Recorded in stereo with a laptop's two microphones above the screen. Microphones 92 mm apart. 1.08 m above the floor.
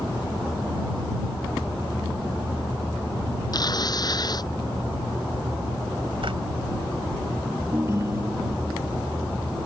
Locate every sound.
3.5 s tearing paper: 45° left (ahead or behind)
6.2 s a drawer: 75° right (ahead or behind)
7.7 s a ringtone: 30° right (ahead or behind)